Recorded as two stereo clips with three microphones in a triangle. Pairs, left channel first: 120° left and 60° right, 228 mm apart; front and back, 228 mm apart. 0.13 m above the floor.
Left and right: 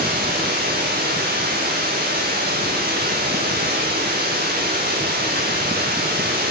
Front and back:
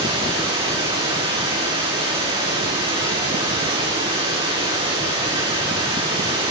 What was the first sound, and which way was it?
Running water, 110° right.